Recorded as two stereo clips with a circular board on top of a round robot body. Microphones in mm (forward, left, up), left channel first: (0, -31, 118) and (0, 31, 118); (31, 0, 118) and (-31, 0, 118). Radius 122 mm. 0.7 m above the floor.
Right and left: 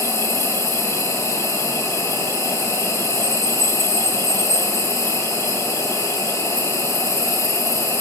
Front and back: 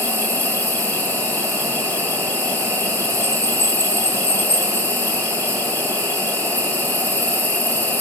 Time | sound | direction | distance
0.0 | an insect | 60° right | 4.5 m